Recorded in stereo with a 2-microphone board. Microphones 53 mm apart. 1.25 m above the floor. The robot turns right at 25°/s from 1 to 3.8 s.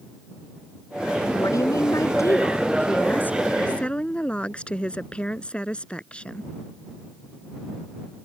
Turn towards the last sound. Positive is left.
turn(degrees=160)